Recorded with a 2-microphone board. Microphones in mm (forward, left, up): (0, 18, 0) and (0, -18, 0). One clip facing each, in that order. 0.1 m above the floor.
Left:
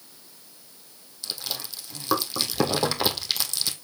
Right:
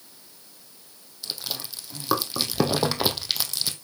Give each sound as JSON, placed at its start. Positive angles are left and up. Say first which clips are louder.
{"t": 1.2, "sound": "chewing", "louder": "even", "side_deg": -5, "distance_m": 1.6}